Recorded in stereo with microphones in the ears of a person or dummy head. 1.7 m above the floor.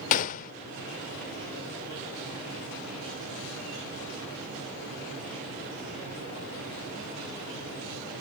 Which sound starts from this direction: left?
A gunshot, at 0.1 s.